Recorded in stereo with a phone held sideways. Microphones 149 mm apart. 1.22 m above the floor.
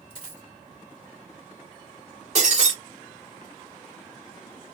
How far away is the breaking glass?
About 2.5 m.